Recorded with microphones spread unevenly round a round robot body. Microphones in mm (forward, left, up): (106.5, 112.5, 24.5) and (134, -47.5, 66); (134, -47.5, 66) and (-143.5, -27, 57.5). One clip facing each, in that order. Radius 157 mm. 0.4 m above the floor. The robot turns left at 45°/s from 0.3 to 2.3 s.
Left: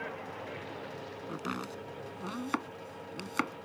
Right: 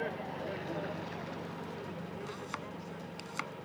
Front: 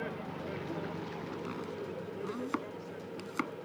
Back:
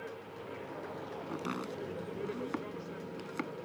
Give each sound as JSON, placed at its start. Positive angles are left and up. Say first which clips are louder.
{"t": 0.0, "sound": "a vehicle", "louder": "right 3 dB, front 5 dB", "azimuth_deg": -30}
{"t": 1.3, "sound": "chopping", "louder": "left 3 dB, back 4 dB", "azimuth_deg": 115}